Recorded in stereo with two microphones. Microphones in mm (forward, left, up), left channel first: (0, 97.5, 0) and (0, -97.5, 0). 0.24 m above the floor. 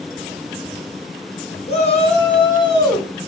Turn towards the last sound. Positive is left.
turn(degrees=15)  # may be behind; listen again after turning